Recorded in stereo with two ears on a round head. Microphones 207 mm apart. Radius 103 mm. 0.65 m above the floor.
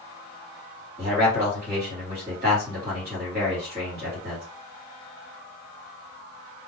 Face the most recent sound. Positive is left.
turn(degrees=-35)  # may be behind; listen again after turning